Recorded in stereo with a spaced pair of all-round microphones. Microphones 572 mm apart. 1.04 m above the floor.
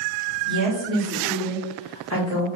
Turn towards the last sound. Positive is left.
turn(degrees=30)  # may be behind; listen again after turning